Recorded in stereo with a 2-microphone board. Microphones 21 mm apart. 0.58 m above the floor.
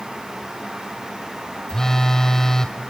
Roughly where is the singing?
No singing in this recording.